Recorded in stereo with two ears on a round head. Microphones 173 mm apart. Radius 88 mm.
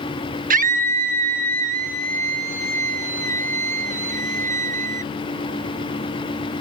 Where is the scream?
45° right (ahead or behind).